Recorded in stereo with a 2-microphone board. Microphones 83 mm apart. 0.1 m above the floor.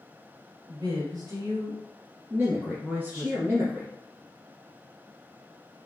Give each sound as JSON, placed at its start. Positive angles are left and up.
{"t": 0.7, "sound": "a woman speaking", "side_deg": -55, "distance_m": 2.0}
{"t": 2.3, "sound": "a man speaking", "side_deg": -25, "distance_m": 2.0}